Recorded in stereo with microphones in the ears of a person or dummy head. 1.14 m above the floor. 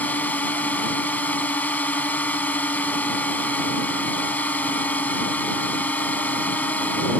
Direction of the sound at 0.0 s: 10° left (ahead or behind).